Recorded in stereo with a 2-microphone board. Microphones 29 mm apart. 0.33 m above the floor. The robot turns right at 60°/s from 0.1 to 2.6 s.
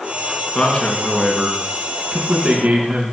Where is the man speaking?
135° left, 3.5 m; by 3.1 s 100° right, 3.5 m.